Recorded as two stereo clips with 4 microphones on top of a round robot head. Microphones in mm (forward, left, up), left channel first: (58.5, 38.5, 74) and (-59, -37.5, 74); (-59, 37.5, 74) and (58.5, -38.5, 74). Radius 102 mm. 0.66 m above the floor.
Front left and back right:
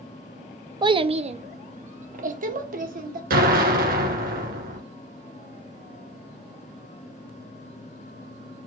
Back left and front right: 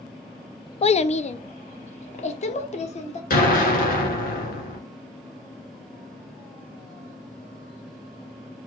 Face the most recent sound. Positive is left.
turn(degrees=180)